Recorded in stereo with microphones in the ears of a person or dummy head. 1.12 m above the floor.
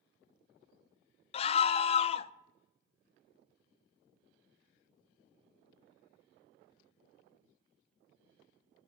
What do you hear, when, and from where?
1.3 s a scream: 30° left (ahead or behind), 0.6 m